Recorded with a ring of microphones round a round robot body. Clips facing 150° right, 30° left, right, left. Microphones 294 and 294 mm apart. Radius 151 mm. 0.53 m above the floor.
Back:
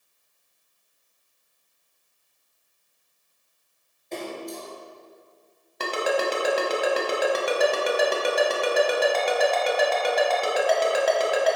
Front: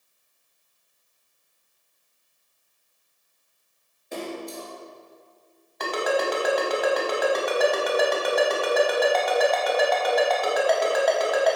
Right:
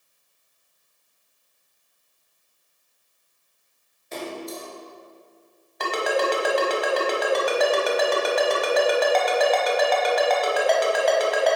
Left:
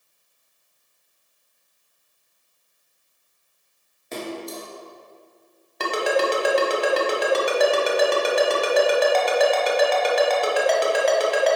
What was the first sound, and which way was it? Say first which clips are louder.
A splash: even, left 1 dB; 115° left.